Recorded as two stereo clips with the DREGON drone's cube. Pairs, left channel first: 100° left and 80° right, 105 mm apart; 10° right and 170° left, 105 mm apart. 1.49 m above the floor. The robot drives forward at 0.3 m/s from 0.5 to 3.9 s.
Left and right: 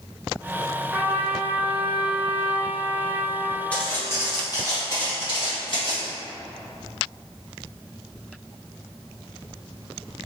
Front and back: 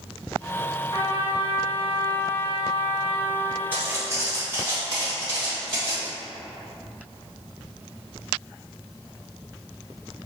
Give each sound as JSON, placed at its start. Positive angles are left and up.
{"t": 0.9, "sound": "a trumpet", "azimuth_deg": -10, "distance_m": 1.2}
{"t": 3.7, "sound": "footsteps", "azimuth_deg": 150, "distance_m": 1.5}